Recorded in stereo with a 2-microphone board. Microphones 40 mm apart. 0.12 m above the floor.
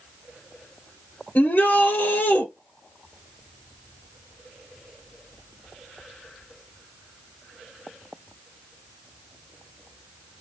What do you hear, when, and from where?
1.4 s a shout: 55° left (ahead or behind), 2.5 m